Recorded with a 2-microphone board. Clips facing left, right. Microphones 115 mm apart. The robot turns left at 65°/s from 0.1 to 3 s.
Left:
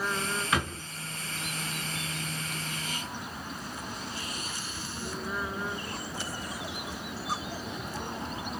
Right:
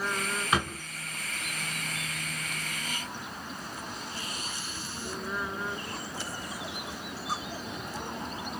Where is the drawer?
20° right (ahead or behind), 1.7 m; by 0.8 s 40° right (ahead or behind), 1.7 m.